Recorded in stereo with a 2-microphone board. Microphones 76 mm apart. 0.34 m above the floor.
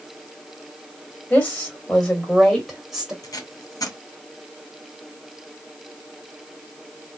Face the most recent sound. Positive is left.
turn(degrees=55)  # may be behind; listen again after turning